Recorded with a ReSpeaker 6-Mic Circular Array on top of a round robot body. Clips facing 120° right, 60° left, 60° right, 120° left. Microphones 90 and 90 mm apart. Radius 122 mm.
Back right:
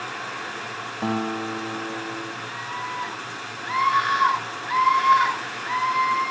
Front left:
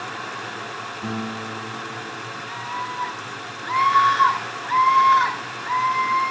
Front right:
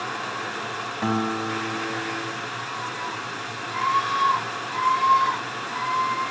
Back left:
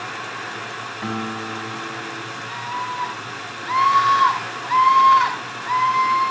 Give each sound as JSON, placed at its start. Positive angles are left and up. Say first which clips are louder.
{"t": 1.0, "sound": "a guitar", "louder": "back right 5 dB, front right 3 dB", "azimuth_deg": -120, "distance_m": 2.5}
{"t": 2.5, "sound": "a scream", "louder": "front left 4 dB, back left 4 dB", "azimuth_deg": 150, "distance_m": 7.5}